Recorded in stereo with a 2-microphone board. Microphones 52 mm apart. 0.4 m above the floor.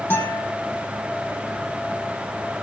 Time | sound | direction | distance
0.1 | a guitar | 40° left (ahead or behind) | 5.5 m